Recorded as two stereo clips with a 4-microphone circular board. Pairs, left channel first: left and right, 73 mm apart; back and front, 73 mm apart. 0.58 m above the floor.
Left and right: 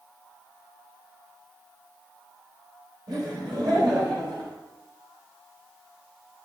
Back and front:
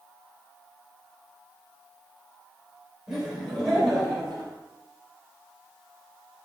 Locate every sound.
3.1 s laughter: 80° right, 2.5 m; by 4.5 s 90° right, 3 m